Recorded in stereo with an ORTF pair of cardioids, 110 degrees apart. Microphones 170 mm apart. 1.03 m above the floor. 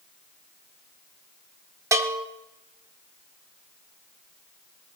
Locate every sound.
1.9 s a bell: 20° right, 1.8 m